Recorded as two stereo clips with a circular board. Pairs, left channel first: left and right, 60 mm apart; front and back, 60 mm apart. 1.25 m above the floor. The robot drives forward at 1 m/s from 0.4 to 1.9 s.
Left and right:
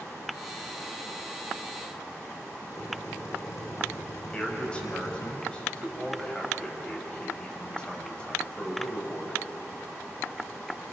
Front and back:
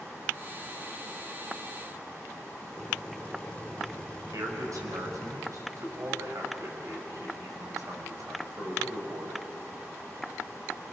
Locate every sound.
2.7 s a drill: 75° left, 6 m
4.3 s a man speaking: 165° left, 5.5 m